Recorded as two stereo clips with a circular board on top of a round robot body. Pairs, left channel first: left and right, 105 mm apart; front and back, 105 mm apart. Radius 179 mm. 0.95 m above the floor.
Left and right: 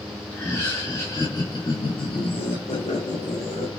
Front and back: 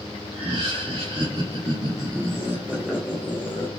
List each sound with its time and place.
0.3 s laughter: 160° left, 1.9 m; by 3.7 s 70° left, 1.3 m